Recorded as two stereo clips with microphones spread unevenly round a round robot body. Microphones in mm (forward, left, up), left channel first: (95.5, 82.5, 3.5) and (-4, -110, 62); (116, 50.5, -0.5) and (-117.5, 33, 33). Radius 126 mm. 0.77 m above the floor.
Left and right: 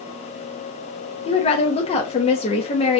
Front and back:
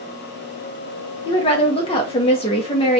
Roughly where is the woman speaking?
Ahead left.